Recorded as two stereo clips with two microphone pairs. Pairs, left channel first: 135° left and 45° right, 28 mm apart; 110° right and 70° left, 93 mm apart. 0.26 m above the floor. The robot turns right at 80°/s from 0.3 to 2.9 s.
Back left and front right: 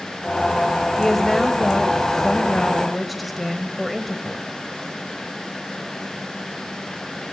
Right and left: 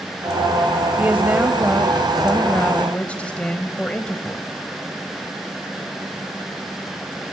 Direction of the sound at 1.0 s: 70° left.